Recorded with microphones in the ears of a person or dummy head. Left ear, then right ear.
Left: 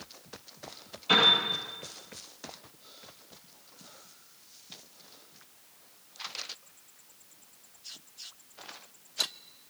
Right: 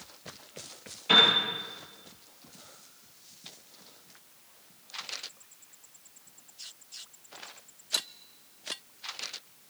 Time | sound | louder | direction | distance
1.1 | a piano | right 2 dB | 15° right (ahead or behind) | 9 m